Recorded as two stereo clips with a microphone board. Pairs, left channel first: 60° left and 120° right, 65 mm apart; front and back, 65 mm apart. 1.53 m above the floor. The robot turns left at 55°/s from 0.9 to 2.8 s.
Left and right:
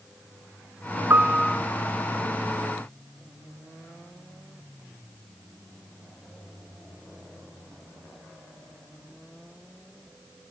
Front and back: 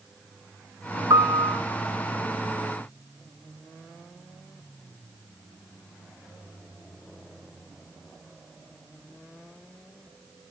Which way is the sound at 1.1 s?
175° right.